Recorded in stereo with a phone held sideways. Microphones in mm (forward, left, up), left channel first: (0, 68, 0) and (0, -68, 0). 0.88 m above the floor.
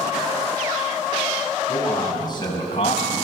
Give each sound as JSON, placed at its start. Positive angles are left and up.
{"t": 1.7, "sound": "a man speaking", "side_deg": 25, "distance_m": 5.5}